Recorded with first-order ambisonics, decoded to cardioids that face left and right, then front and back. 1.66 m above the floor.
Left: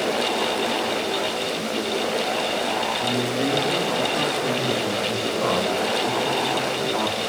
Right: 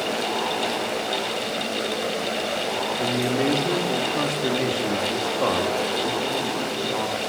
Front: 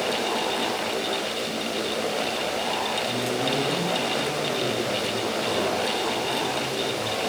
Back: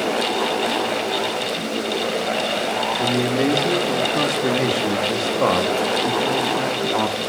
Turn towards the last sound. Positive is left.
turn(degrees=180)